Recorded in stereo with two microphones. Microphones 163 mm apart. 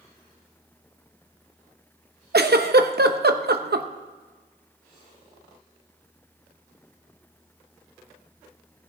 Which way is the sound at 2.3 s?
80° right.